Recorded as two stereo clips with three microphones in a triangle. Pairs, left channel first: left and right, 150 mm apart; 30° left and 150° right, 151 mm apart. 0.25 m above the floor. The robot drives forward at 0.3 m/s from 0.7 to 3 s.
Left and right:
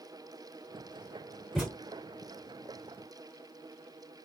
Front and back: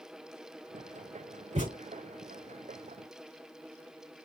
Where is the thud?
175° left, 0.9 m; by 1.8 s straight behind, 1.0 m.